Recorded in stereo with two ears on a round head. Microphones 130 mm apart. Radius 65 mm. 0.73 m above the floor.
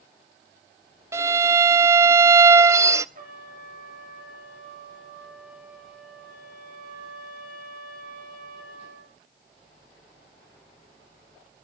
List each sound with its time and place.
1.1 s a violin: 20° right (ahead or behind), 0.6 m
3.1 s a trumpet: 60° right (ahead or behind), 6 m